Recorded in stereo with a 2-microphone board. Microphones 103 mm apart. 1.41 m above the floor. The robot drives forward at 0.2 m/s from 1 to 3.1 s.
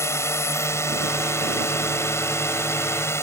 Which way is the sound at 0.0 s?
25° left (ahead or behind).